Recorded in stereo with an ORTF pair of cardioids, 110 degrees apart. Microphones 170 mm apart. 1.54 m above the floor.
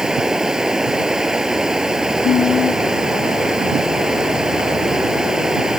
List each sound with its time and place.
0.0 s running water: 5° right
2.2 s singing: 55° left